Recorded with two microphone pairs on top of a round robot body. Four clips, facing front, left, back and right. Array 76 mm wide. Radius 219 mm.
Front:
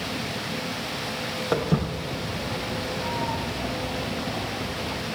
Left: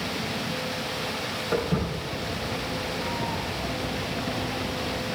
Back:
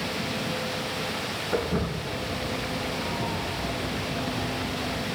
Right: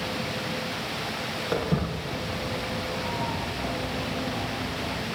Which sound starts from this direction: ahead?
Footsteps, at 1.5 s.